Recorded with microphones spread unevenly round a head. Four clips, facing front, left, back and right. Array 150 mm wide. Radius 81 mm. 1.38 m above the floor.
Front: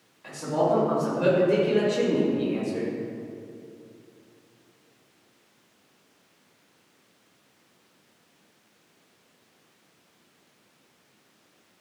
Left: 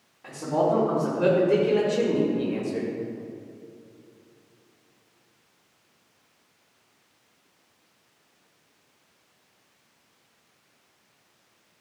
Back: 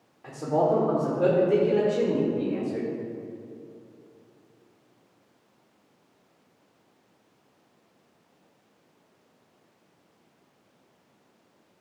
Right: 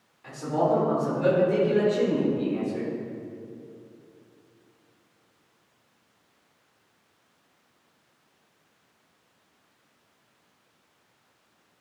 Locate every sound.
0.2 s a man speaking: 165° left, 3.5 m; by 2.9 s 120° left, 4 m